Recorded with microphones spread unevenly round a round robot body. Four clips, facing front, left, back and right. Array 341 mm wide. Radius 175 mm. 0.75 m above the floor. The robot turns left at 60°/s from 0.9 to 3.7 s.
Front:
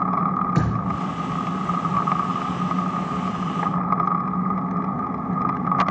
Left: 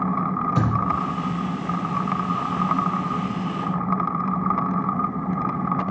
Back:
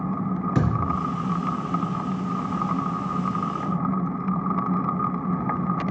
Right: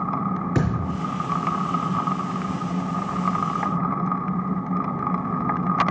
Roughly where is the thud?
Behind right.